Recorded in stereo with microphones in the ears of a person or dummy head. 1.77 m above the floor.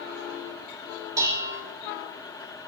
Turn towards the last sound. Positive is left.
turn(degrees=-15)  # may be behind; listen again after turning